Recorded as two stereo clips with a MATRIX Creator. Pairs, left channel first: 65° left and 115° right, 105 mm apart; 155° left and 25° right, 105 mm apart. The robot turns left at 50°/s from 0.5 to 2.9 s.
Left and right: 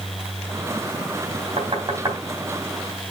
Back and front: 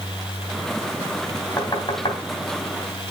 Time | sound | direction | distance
1.6 | knocking | 145° right | 3.5 m